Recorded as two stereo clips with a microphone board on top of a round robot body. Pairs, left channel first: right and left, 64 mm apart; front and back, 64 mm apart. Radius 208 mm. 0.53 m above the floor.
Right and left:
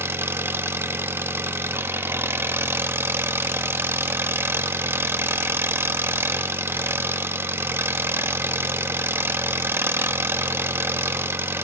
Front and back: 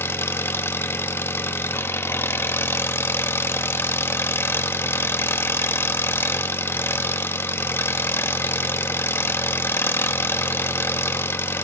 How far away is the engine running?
About 1.4 m.